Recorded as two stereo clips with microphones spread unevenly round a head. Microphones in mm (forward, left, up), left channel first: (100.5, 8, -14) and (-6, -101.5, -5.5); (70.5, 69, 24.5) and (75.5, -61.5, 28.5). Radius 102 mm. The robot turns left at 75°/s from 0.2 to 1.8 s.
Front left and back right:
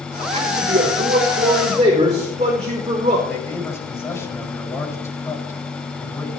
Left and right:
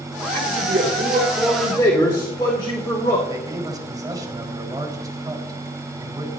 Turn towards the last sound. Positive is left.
turn(degrees=-25)